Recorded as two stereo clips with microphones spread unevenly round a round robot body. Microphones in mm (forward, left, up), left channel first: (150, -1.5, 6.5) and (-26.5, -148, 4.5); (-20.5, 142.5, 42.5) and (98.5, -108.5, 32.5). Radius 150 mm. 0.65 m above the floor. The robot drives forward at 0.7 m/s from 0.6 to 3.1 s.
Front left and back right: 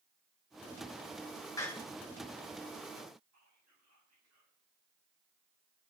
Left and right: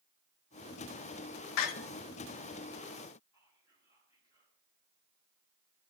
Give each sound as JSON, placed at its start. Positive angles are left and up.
{"t": 1.6, "sound": "a door slam", "azimuth_deg": 120, "distance_m": 0.8}
{"t": 3.3, "sound": "whispering", "azimuth_deg": -170, "distance_m": 7.0}